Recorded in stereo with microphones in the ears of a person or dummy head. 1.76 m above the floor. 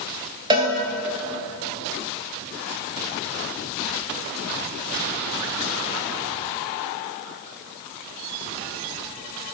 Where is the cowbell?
25° right (ahead or behind), 0.9 m.